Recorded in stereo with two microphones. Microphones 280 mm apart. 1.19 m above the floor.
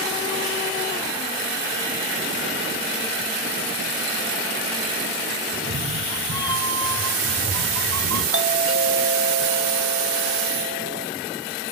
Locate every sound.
5.5 s a cat meowing: 55° right (ahead or behind), 5 m; by 8.2 s 85° right, 5.5 m
8.3 s a doorbell: 55° right (ahead or behind), 1.5 m